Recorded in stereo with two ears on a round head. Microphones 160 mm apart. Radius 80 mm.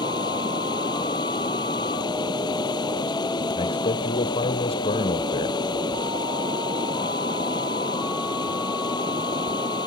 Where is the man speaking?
35° left (ahead or behind).